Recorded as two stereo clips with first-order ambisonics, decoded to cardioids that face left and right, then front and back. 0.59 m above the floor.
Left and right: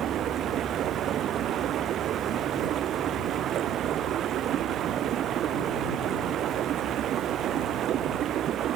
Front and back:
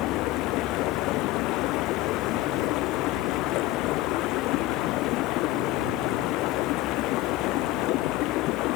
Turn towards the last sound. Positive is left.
turn(degrees=-35)